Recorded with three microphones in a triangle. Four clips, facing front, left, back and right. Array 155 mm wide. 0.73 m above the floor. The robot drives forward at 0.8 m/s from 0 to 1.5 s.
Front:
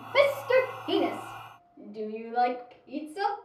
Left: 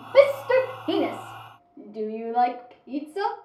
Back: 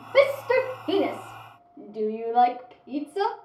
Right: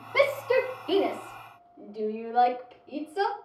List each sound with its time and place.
0.1 s a shout: 90° left, 1.6 m; by 3.3 s 130° left, 2.0 m